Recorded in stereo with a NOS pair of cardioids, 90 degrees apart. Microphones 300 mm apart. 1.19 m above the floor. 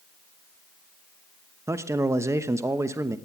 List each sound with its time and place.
1.7 s a man speaking: 10° right, 0.9 m